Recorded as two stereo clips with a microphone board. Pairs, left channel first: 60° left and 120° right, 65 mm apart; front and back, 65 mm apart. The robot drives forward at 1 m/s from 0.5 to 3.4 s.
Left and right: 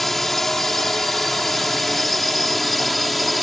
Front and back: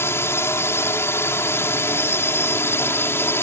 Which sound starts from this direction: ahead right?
A drone, at 0.0 s.